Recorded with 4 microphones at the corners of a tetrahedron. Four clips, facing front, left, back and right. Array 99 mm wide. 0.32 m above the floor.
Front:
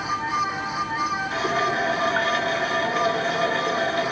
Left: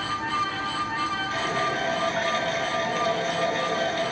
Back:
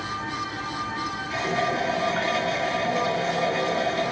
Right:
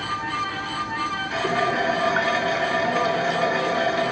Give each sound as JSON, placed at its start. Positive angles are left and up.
{"t": 1.3, "sound": "a running tap", "azimuth_deg": -55, "distance_m": 2.5}